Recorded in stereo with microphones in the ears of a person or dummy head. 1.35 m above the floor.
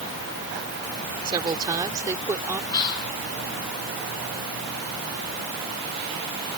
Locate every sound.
1.2 s a woman speaking: 30° right (ahead or behind); by 2.6 s 15° right (ahead or behind)
2.7 s whispering: 20° left (ahead or behind)